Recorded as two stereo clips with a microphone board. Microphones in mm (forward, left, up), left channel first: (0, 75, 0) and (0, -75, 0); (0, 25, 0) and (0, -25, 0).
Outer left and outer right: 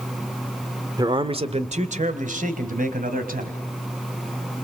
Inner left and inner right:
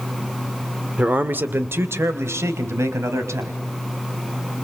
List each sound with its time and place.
1.0 s a man speaking: 25° right (ahead or behind), 1.6 m; by 3.6 s 70° right (ahead or behind), 4 m